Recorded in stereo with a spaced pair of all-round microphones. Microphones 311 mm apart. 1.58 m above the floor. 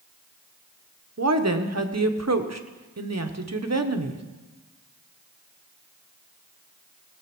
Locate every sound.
1.2 s a woman speaking: 55° right (ahead or behind), 1.0 m